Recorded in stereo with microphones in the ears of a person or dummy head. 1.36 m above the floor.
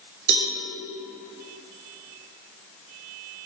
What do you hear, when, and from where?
0.3 s a cowbell: 55° right (ahead or behind), 1.0 m